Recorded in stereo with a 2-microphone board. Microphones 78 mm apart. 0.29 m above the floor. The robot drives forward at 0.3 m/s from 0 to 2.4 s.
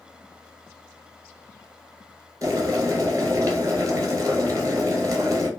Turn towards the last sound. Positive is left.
turn(degrees=-45)  # may be behind; listen again after turning